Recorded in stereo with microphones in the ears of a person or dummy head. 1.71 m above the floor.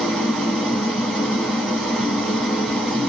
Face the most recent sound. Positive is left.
turn(degrees=-5)  # may be behind; listen again after turning